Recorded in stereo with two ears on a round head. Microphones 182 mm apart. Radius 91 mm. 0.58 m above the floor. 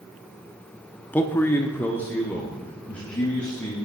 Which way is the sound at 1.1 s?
10° left (ahead or behind).